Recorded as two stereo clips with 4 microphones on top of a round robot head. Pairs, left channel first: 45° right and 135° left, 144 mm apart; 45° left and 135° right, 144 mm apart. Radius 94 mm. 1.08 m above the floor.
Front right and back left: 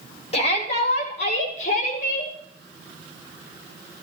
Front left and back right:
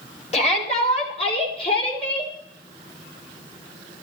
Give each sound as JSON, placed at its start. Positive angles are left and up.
{"t": 0.3, "sound": "a shout", "azimuth_deg": 0, "distance_m": 4.0}